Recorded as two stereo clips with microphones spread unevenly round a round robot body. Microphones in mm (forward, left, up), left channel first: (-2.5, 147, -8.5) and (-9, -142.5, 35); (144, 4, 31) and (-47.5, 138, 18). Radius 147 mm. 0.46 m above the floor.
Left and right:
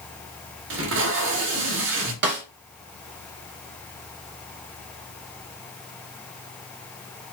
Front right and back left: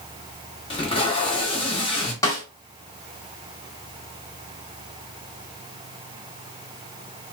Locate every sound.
0.7 s tape being pulled: 90° right, 1.0 m
2.2 s a snare drum: 105° right, 1.0 m